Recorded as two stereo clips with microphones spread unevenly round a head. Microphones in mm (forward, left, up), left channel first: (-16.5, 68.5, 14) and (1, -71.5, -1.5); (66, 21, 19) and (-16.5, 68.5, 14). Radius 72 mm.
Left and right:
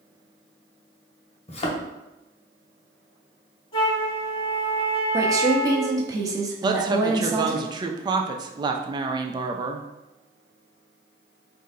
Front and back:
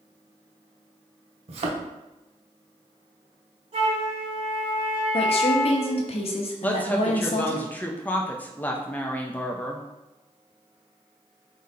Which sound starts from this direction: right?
A woman speaking, at 6.6 s.